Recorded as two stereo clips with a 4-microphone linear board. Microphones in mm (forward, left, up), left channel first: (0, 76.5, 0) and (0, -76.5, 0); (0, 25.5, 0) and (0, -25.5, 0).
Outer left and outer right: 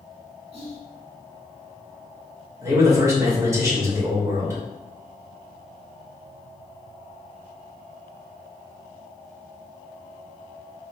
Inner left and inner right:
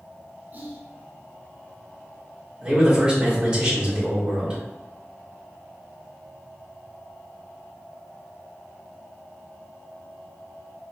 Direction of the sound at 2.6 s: 20° right (ahead or behind).